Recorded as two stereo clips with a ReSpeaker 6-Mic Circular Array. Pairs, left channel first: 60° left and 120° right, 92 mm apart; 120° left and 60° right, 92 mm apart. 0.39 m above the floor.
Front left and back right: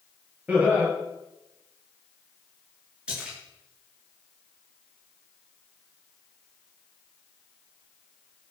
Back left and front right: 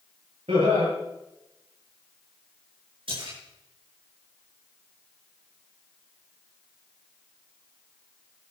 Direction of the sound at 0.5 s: 45° right.